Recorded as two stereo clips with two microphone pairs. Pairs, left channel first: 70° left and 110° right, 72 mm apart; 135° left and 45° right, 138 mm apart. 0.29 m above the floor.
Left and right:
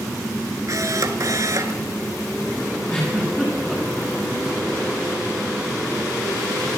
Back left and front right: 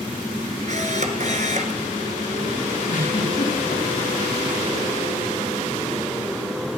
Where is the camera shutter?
75° right, 1.0 m.